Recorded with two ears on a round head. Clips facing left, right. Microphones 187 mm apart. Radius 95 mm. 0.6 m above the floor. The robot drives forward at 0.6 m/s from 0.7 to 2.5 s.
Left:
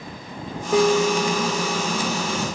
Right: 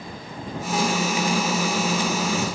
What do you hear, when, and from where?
0.7 s a piano: 60° left (ahead or behind); by 1.9 s 70° left (ahead or behind)